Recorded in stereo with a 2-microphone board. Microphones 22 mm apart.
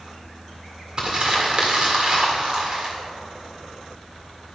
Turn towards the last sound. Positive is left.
turn(degrees=-35)  # may be behind; listen again after turning